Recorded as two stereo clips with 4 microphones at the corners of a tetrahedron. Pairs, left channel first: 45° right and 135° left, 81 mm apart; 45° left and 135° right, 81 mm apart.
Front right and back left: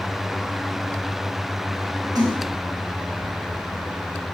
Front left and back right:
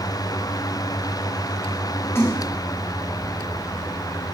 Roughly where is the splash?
Left.